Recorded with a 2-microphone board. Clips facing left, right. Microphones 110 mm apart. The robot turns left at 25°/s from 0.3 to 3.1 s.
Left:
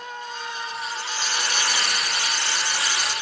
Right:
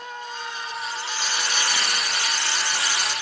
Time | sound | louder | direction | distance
0.7 | frying | even | 145° left | 8 m